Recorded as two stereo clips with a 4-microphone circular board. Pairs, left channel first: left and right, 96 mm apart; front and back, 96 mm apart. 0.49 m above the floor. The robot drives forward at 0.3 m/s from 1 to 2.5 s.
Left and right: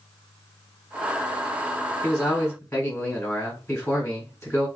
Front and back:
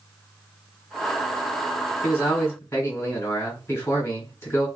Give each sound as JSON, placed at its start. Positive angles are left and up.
{"t": 2.0, "sound": "a man speaking", "azimuth_deg": 45, "distance_m": 1.9}